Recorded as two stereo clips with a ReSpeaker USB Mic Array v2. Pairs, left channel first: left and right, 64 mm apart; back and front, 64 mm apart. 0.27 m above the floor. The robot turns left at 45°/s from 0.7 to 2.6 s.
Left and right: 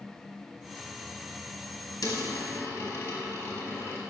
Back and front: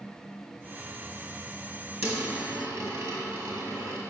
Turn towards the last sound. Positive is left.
turn(degrees=35)